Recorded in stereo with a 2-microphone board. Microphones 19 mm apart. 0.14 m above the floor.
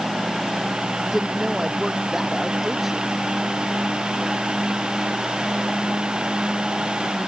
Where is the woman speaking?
20° right (ahead or behind).